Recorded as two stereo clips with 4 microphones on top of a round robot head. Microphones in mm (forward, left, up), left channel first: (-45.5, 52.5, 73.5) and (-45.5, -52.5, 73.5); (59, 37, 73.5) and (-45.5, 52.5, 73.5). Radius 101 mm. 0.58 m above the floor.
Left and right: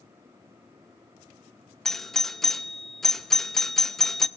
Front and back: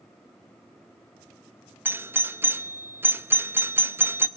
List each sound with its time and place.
1.9 s a doorbell: 170° left, 1.0 m